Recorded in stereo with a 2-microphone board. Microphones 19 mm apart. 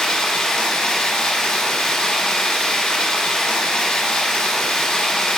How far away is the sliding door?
No sliding door in this recording.